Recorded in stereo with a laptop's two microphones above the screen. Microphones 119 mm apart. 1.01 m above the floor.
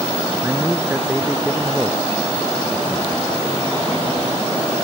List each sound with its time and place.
0.4 s a man speaking: 15° right (ahead or behind)